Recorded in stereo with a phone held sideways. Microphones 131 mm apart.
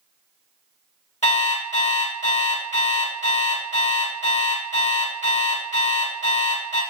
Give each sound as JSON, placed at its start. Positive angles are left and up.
{"t": 1.2, "sound": "an alarm clock", "side_deg": 55, "distance_m": 1.4}